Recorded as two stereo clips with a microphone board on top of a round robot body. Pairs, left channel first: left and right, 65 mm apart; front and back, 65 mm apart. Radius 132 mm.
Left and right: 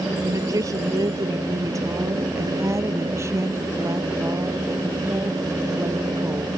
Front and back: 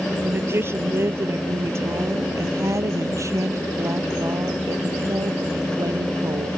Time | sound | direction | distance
0.2 | a woman speaking | 125° right | ?